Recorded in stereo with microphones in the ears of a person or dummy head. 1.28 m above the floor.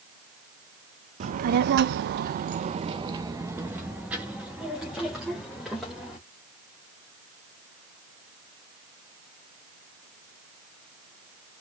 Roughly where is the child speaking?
Right.